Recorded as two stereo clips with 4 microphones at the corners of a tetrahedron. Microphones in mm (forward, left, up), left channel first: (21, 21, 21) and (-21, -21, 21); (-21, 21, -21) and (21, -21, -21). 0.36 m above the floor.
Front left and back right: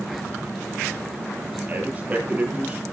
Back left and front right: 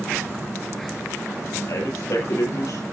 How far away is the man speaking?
About 9 m.